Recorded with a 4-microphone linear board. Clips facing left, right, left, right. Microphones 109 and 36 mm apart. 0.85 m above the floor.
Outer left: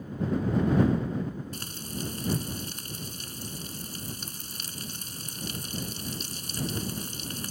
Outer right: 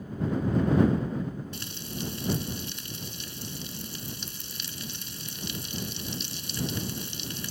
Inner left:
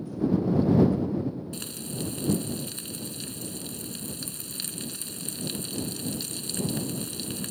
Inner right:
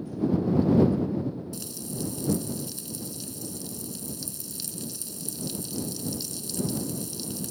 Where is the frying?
45° left (ahead or behind).